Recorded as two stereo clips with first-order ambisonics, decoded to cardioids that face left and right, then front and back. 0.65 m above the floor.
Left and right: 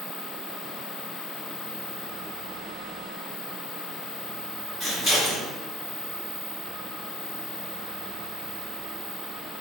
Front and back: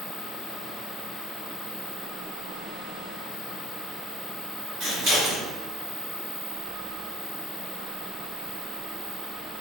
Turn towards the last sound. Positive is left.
turn(degrees=165)